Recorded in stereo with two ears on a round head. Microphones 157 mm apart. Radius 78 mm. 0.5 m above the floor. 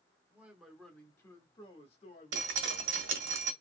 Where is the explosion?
I don't hear an explosion.